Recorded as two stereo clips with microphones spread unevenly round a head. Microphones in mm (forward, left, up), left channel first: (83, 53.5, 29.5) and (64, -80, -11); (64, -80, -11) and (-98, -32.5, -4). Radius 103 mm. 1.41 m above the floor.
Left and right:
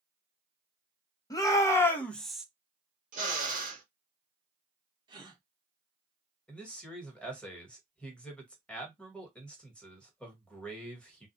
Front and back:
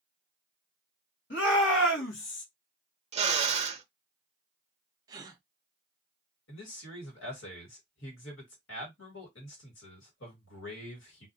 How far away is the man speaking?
About 1.5 m.